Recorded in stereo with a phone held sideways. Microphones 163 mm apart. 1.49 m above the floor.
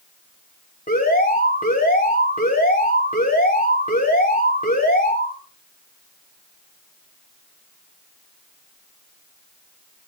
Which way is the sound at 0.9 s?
50° left (ahead or behind).